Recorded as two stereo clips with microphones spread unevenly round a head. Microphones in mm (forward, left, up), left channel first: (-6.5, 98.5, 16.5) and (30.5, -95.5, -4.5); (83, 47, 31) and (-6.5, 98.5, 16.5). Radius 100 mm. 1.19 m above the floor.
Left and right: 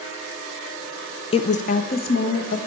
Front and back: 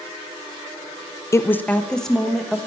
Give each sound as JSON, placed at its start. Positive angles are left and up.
{"t": 1.3, "sound": "a woman speaking", "azimuth_deg": 35, "distance_m": 0.6}